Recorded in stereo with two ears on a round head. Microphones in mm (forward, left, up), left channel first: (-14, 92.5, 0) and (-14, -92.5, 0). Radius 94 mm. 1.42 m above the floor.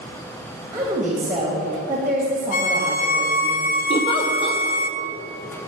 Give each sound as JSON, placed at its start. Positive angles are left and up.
{"t": 0.7, "sound": "a woman speaking", "side_deg": -10, "distance_m": 2.0}
{"t": 2.5, "sound": "a violin", "side_deg": 45, "distance_m": 0.7}
{"t": 3.9, "sound": "a giggle", "side_deg": 25, "distance_m": 0.9}